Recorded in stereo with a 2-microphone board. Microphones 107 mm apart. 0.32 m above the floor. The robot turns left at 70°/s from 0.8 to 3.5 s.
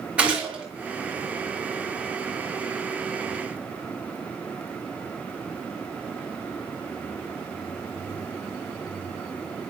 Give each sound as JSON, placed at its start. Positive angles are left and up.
{"t": 0.2, "sound": "a gunshot", "side_deg": -10, "distance_m": 6.0}